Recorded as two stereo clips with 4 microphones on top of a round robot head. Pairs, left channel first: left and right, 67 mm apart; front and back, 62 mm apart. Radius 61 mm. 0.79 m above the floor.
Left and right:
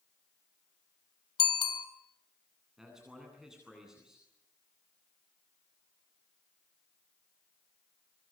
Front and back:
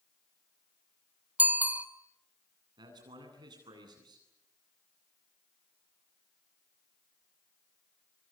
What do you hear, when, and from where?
1.4 s a bicycle bell: 115° left, 2 m
2.8 s a man speaking: 175° right, 9.5 m